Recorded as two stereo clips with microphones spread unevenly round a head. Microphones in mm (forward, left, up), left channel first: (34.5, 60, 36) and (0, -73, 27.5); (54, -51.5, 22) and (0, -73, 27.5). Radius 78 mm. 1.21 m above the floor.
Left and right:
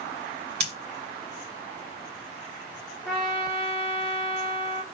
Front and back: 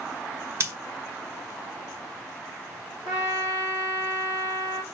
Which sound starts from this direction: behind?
A trumpet, at 3.0 s.